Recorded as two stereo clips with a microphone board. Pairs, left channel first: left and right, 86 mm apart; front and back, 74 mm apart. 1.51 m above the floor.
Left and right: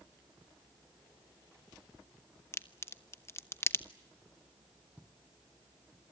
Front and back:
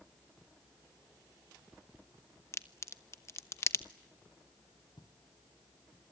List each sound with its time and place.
2.5 s a crack: 40° left, 1.0 m
5.0 s footsteps: 10° right, 3 m; by 6.0 s 5° right, 4.5 m